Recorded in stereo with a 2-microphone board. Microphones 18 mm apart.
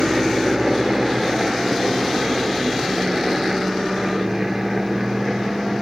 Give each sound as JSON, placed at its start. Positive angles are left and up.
{"t": 0.0, "sound": "a helicopter", "side_deg": -30}